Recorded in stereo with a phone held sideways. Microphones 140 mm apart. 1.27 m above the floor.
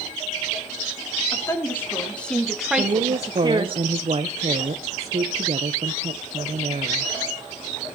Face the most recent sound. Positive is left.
turn(degrees=-50)  # may be behind; listen again after turning